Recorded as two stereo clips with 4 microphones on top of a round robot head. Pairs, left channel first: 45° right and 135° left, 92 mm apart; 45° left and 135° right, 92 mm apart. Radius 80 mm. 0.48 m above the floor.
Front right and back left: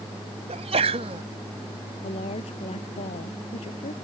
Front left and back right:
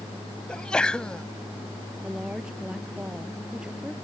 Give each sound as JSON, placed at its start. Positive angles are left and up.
{"t": 0.5, "sound": "a sneeze", "azimuth_deg": 125}
{"t": 2.0, "sound": "a woman speaking", "azimuth_deg": -55}